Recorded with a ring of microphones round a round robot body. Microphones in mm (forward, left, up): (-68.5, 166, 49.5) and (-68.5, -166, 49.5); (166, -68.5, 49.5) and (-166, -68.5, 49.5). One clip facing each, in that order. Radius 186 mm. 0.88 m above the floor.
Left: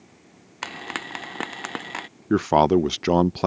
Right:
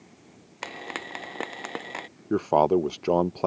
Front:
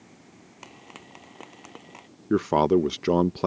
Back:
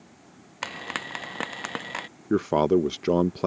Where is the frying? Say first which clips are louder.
Left 1 dB, back 11 dB; 150° left.